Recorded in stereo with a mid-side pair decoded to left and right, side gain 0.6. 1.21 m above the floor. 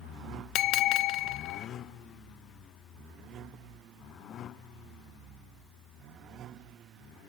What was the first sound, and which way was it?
A bell, 65° left.